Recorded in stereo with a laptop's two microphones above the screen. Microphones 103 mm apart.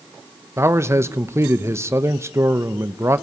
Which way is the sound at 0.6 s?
25° right (ahead or behind).